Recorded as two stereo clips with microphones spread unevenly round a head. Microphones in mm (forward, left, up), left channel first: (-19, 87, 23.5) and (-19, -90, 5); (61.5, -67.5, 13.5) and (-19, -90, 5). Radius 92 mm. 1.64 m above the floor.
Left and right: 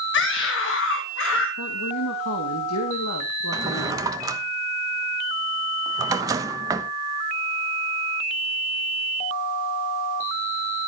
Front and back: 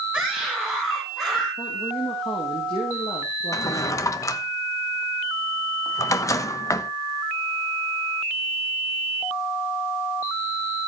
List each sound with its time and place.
0.1 s a scream: 110° left, 2 m; by 1.5 s 105° left, 3.5 m
1.6 s a woman speaking: 80° left, 2.5 m
3.5 s a drawer: 15° right, 1.1 m